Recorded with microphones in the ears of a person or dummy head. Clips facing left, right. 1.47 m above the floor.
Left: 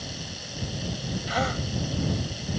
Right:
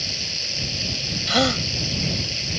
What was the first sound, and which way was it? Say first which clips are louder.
Running water: right 1 dB; 35° right (ahead or behind).